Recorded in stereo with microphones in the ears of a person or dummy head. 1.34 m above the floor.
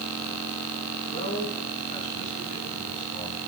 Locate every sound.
1.1 s a man speaking: 30° left (ahead or behind), 8.5 m; by 3.4 s 40° left (ahead or behind), 7.5 m